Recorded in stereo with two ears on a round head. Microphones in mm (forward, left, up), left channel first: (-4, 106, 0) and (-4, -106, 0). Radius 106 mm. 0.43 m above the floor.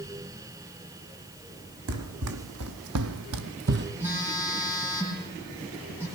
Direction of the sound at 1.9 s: 65° right (ahead or behind).